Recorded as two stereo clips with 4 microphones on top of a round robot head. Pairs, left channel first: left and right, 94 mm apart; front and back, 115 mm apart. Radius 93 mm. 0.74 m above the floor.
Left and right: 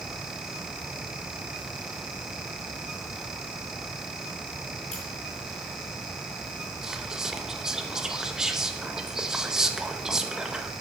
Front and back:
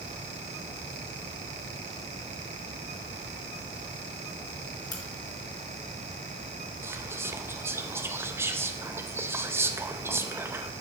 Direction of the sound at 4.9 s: 55° left.